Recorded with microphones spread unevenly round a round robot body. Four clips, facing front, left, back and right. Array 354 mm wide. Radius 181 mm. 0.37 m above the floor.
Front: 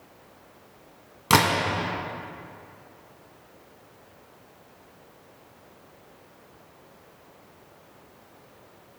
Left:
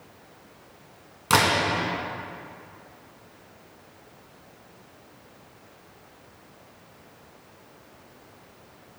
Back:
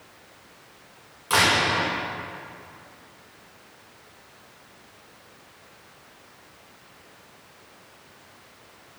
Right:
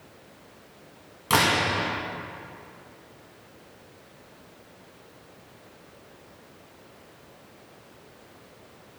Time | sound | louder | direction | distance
1.3 | a camera shutter | left 1 dB, front 2 dB | 10° left | 2.0 m